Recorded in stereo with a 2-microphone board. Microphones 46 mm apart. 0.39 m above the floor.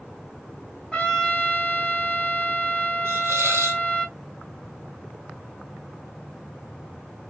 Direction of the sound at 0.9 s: 20° left (ahead or behind).